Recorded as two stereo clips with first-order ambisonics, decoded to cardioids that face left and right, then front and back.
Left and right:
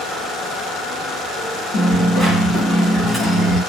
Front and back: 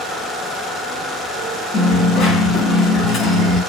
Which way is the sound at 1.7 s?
25° left.